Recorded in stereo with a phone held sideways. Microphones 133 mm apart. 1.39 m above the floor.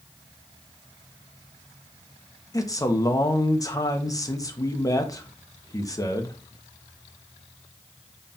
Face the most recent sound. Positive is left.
turn(degrees=25)  # may be behind; listen again after turning